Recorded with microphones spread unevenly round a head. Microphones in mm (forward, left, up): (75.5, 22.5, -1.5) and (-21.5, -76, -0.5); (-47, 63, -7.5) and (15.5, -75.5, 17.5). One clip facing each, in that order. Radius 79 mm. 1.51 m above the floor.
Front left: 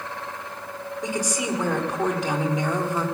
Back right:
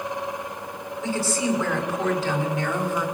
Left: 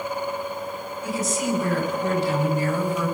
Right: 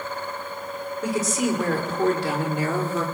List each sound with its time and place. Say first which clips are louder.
1.0 s a woman speaking: back right 3 dB, right 2 dB; 30° right, 6.5 m; by 3.1 s 25° right, 5 m